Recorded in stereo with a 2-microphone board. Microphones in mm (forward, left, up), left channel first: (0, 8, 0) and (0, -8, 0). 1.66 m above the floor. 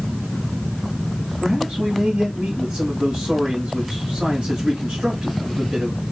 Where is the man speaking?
80° right, 4.5 m.